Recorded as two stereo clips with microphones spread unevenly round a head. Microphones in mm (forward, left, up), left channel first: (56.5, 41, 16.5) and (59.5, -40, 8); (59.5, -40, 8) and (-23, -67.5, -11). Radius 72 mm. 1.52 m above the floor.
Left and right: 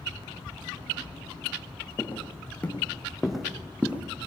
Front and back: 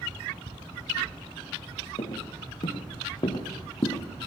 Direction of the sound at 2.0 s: 30° left.